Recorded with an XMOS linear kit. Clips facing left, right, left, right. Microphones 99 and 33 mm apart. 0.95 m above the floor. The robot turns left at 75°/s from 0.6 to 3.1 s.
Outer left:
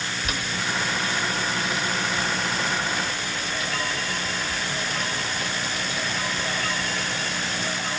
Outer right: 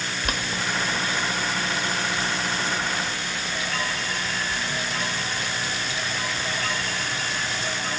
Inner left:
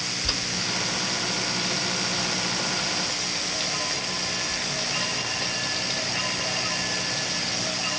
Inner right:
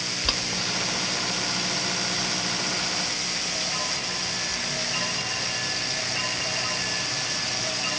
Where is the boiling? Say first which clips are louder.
Outer right 2 dB, inner right 2 dB; 50° right (ahead or behind), 1.0 m; by 7.7 s 45° left (ahead or behind), 1.0 m.